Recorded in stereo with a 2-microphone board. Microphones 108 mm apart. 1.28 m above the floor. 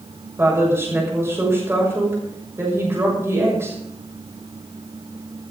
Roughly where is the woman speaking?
Right.